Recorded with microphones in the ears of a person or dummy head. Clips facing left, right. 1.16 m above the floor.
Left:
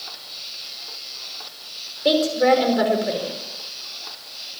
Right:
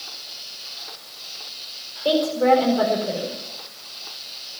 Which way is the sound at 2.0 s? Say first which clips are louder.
Left 1 dB; 20° left (ahead or behind).